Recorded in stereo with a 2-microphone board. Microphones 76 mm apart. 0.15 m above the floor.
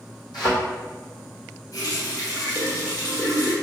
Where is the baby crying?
No baby crying in this recording.